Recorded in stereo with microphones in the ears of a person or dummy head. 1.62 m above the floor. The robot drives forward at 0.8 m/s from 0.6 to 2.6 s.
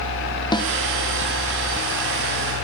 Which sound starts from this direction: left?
A snare drum, at 0.5 s.